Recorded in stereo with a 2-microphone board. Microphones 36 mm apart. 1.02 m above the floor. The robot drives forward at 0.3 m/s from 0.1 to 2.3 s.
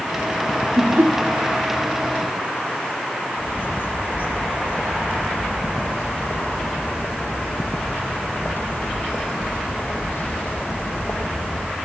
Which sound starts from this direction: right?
Laughter, at 0.8 s.